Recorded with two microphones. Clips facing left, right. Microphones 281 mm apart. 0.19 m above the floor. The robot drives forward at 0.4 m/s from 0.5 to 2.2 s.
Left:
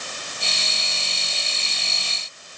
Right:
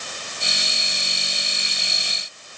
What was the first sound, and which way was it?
Only background noise.